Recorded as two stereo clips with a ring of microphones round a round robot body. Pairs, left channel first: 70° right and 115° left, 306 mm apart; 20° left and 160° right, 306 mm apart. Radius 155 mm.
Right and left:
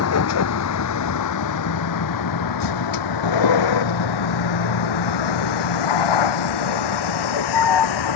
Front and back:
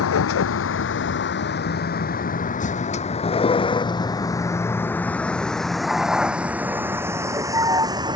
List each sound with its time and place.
0.0 s a vehicle: 25° right; by 8.2 s 80° right